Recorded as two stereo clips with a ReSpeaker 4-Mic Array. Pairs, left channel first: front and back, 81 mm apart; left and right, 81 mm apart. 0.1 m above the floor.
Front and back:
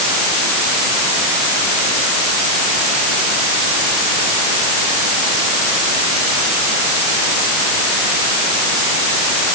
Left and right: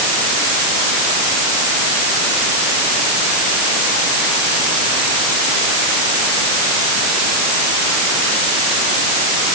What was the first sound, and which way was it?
Only background noise.